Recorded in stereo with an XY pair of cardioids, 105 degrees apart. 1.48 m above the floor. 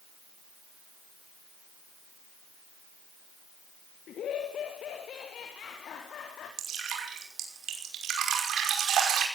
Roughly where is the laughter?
Ahead left.